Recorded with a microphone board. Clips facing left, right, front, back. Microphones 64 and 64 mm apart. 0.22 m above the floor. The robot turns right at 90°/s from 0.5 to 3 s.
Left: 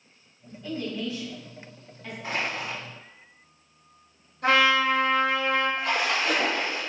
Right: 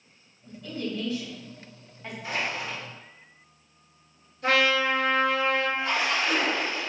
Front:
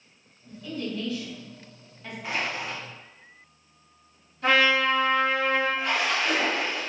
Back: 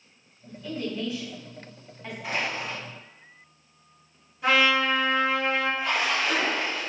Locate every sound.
0.5 s a woman speaking: 100° left, 1.6 m; by 2.1 s 115° right, 1.6 m
2.2 s crushing: 90° left, 1.6 m; by 2.8 s 140° left, 1.6 m
4.4 s a trumpet: 100° left, 1.8 m
5.8 s a splash: 95° left, 1.2 m